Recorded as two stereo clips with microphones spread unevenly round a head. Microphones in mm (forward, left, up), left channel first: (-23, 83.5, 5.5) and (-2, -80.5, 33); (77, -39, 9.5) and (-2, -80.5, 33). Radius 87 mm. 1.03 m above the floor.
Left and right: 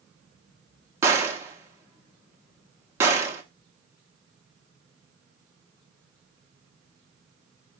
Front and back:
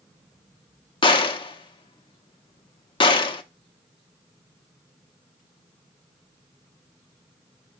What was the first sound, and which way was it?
A gunshot, 10° right.